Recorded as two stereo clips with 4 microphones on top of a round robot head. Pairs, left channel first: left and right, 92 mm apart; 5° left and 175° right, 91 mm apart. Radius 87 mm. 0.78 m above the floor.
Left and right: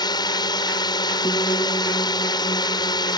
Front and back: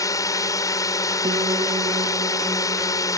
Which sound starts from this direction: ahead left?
A drone, at 0.0 s.